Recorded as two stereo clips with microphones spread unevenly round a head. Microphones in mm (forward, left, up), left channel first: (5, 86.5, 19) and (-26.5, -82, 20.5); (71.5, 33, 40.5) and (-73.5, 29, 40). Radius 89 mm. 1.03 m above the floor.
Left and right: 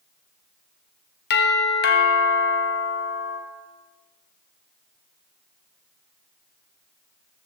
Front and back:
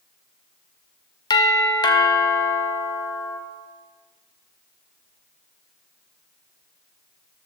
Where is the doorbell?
60° left, 1.4 m.